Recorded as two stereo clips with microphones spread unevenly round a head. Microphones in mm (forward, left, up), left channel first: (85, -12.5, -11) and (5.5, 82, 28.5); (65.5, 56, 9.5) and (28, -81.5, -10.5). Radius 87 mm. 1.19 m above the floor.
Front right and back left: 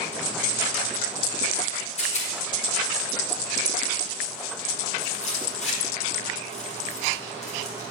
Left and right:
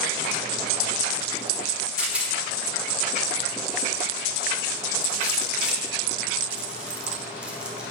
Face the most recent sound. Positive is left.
turn(degrees=-25)